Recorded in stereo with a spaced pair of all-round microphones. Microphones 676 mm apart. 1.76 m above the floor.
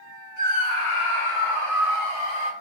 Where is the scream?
60° left (ahead or behind), 1.2 m; by 2.5 s 35° left (ahead or behind), 1.7 m.